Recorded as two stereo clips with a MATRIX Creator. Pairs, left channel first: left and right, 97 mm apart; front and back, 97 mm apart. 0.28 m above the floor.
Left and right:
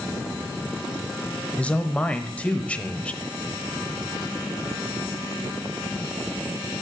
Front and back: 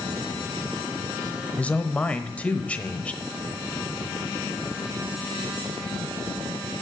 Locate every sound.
1.6 s a man speaking: 45° left, 1.0 m